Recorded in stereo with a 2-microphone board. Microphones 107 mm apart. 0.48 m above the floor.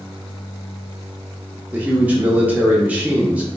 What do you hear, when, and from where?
1.7 s a man speaking: 15° right (ahead or behind), 0.7 m